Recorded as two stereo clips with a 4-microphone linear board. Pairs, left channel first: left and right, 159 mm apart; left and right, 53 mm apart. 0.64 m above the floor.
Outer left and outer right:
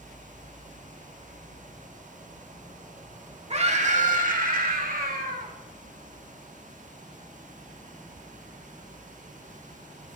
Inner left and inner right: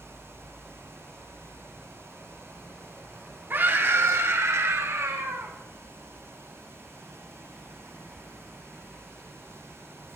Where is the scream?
40° right (ahead or behind), 1.7 m; by 5.5 s 65° right (ahead or behind), 2.5 m.